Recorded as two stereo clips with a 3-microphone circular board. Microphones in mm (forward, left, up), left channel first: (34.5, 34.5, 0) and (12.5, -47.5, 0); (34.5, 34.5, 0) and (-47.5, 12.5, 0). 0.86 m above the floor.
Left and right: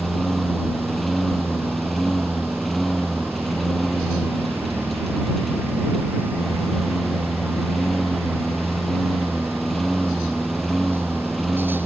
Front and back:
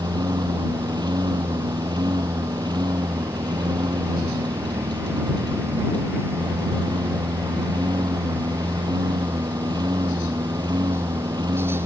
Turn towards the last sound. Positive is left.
turn(degrees=165)